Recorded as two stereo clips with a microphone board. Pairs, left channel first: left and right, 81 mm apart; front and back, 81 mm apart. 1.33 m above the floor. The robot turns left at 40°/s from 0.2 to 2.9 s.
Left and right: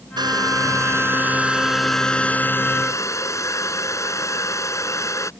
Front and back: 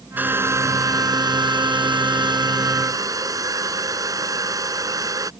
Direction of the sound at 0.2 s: 110° right.